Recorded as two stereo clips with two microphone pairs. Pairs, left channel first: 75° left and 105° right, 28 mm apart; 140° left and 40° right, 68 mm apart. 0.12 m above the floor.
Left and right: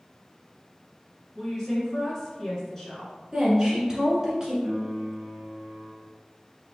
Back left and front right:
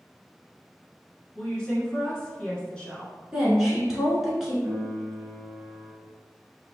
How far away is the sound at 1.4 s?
About 1.1 m.